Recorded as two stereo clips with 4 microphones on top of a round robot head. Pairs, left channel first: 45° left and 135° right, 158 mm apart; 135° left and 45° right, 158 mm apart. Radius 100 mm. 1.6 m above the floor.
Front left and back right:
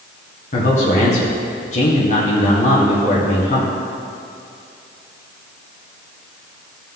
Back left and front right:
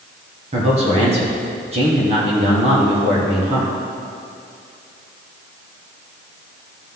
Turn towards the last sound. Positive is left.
turn(degrees=5)